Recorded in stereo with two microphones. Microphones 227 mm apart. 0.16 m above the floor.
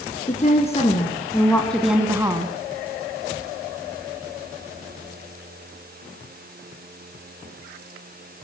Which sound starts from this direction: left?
A woman speaking, at 0.3 s.